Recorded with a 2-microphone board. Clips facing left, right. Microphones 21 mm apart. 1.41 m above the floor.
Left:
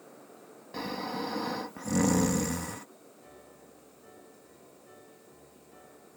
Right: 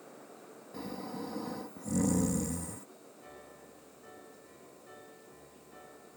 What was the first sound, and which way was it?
Snoring, 65° left (ahead or behind).